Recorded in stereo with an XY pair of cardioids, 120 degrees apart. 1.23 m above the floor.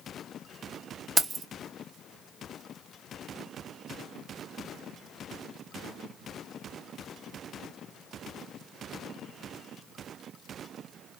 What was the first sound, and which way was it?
Keys jangling, 30° right.